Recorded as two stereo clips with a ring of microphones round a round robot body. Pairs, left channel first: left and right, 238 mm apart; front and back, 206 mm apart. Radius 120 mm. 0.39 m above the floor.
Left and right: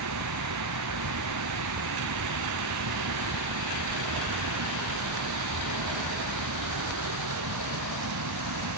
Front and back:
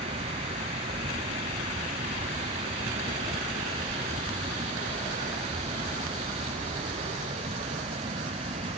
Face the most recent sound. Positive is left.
turn(degrees=-110)